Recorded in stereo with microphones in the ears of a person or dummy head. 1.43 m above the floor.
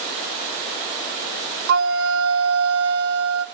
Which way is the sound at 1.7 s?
60° right (ahead or behind).